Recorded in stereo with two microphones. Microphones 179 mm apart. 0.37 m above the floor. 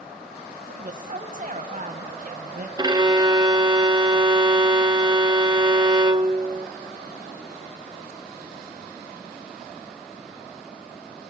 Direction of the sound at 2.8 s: 25° right (ahead or behind).